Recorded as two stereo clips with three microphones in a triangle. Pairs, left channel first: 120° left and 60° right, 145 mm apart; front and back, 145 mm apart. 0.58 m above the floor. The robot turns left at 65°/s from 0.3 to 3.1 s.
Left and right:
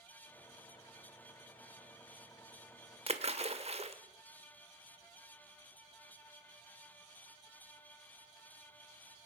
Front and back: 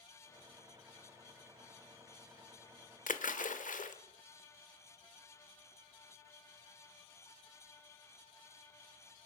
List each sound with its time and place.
3.1 s a splash: 15° right, 1.1 m; by 4.0 s 20° right, 1.1 m